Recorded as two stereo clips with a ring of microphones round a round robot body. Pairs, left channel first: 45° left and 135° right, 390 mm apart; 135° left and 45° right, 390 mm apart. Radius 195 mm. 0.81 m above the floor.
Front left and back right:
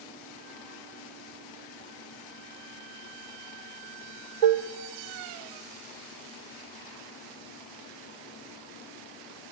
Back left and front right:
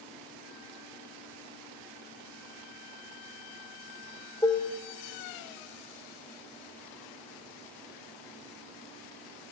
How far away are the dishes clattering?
About 1.6 m.